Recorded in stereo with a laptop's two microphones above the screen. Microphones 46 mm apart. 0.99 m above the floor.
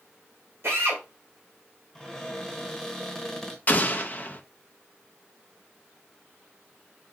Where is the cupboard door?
5° left (ahead or behind), 1.1 m.